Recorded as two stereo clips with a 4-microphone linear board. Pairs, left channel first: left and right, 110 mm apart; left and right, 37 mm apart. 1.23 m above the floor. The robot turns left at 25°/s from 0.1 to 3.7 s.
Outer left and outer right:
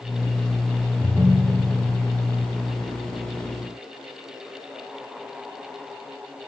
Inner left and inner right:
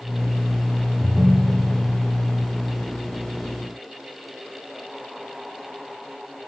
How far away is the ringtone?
About 0.5 m.